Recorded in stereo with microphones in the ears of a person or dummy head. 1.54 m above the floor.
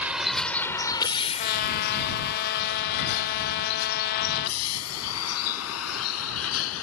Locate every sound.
0.0 s a vehicle: 10° right (ahead or behind); by 6.8 s 85° left
1.4 s a trumpet: 55° left (ahead or behind)